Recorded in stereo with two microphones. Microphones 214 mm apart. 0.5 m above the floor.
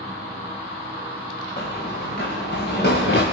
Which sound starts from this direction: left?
Running footsteps, at 1.6 s.